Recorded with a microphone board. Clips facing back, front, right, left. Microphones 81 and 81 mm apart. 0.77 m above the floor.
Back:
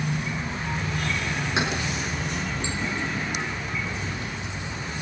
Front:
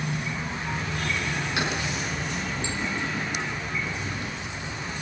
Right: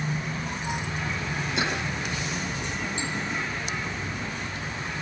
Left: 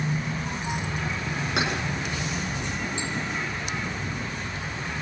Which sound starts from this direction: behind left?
Keys jangling, at 1.6 s.